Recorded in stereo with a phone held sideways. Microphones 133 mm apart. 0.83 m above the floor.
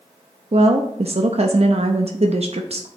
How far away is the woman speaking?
About 0.6 m.